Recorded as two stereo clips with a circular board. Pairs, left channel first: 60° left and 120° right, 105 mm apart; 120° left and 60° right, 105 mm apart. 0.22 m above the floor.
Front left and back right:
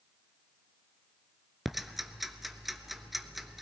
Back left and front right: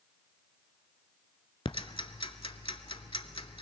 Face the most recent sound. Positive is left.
turn(degrees=150)